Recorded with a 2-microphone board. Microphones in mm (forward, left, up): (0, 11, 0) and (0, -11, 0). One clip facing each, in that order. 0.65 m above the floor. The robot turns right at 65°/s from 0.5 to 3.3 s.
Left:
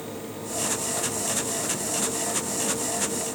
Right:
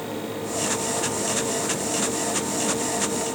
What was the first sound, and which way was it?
Only background noise.